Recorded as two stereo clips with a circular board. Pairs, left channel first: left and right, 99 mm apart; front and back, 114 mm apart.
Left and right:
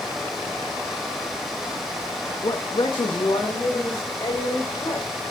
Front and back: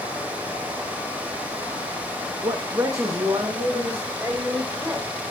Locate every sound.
2.4 s a man speaking: 125° left, 0.6 m; by 5.1 s 115° left, 3.5 m